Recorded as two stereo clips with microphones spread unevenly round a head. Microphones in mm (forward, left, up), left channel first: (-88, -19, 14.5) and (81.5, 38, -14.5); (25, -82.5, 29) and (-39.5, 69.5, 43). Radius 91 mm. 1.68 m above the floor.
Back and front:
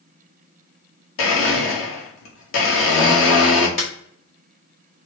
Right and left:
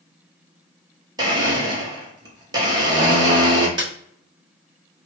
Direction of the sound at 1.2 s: Straight behind.